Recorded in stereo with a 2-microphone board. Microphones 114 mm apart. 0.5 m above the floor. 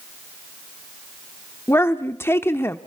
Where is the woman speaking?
20° left (ahead or behind), 0.9 m.